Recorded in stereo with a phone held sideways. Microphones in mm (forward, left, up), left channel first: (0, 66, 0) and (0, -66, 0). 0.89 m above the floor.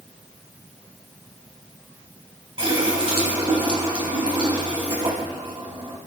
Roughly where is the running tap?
Right.